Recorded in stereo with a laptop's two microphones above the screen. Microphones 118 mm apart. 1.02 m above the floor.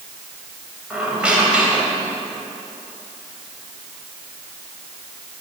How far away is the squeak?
About 3.5 m.